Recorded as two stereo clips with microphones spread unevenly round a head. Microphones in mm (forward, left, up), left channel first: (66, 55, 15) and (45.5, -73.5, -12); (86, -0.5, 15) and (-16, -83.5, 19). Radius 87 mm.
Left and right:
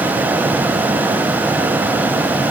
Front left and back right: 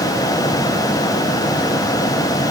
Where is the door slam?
No door slam in this recording.